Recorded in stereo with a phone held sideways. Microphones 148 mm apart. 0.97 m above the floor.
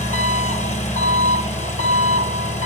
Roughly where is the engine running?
Left.